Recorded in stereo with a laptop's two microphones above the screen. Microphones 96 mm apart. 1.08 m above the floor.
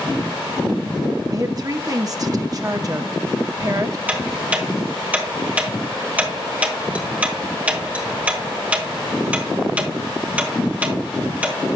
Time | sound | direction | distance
1.3 | a woman speaking | 40° right (ahead or behind) | 0.7 m
4.1 | ticking | 15° right (ahead or behind) | 1.5 m